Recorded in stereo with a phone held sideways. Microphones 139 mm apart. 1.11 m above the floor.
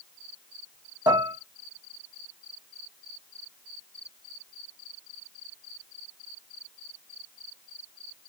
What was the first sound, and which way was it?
Dishes clattering, 30° right (ahead or behind).